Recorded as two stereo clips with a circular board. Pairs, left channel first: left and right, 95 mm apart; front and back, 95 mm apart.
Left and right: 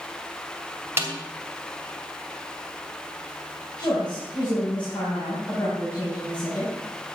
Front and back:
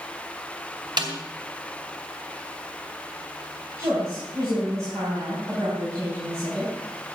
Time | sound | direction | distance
1.0 | a snare drum | 150° right | 2.5 m
3.8 | a woman speaking | 120° left | 4.5 m